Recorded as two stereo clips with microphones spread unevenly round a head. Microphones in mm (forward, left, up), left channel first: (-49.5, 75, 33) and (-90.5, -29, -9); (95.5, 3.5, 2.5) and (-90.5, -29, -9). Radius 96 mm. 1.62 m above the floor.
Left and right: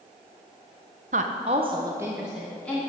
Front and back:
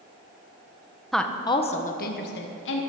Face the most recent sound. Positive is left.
turn(degrees=-15)